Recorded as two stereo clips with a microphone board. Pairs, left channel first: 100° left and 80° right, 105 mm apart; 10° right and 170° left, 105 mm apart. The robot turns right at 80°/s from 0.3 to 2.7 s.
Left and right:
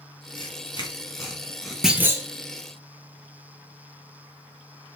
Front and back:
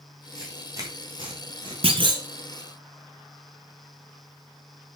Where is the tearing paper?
85° left, 2.5 m; by 1.7 s 165° right, 2.5 m.